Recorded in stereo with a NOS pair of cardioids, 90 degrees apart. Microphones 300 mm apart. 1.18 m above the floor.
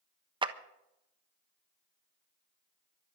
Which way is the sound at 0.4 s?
15° right.